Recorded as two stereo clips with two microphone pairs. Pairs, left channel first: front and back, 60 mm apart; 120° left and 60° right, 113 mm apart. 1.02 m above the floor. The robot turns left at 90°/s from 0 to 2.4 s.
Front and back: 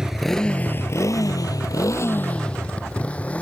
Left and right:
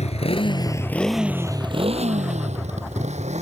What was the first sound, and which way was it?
A motorcycle, 105° left.